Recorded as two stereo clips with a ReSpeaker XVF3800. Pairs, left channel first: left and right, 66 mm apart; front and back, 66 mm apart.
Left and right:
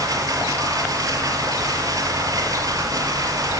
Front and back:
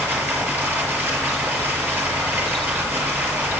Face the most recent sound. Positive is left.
turn(degrees=-120)